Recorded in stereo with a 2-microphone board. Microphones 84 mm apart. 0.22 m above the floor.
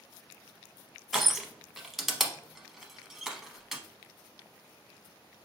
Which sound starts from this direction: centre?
Crushing, at 1.1 s.